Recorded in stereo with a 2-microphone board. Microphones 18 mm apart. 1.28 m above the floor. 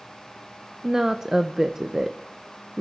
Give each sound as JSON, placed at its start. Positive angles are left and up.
{"t": 0.8, "sound": "a woman speaking", "side_deg": -30, "distance_m": 0.6}